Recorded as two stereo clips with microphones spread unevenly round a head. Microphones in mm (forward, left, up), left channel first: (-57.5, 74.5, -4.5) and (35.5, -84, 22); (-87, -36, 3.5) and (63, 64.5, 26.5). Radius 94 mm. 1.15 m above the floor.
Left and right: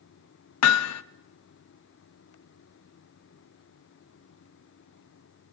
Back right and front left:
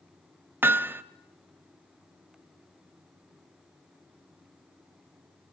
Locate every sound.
0.6 s hammering: 110° left, 0.9 m